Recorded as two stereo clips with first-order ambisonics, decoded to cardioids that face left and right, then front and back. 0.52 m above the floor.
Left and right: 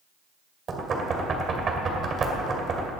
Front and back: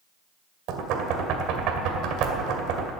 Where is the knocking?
155° right, 2 m.